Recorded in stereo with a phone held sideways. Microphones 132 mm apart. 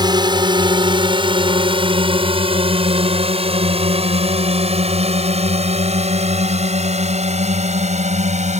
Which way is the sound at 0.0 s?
35° right (ahead or behind).